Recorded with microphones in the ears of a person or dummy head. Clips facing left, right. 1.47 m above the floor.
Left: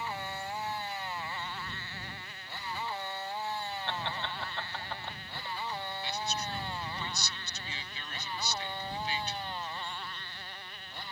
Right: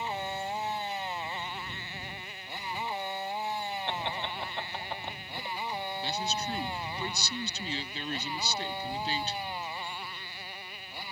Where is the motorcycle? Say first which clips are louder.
Right 4 dB; 15° right (ahead or behind); by 11.1 s 5° right (ahead or behind).